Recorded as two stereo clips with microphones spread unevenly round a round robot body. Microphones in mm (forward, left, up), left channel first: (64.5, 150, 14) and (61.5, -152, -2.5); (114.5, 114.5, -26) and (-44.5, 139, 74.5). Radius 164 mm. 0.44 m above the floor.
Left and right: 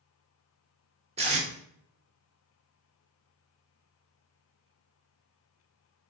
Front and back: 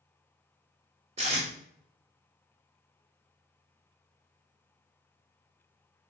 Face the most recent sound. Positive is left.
turn(degrees=-100)